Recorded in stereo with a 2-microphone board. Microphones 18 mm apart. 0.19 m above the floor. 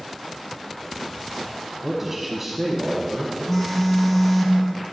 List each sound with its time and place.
1.8 s a man speaking: 15° right (ahead or behind), 1.1 m
3.5 s a phone buzzing: 15° left (ahead or behind), 1.1 m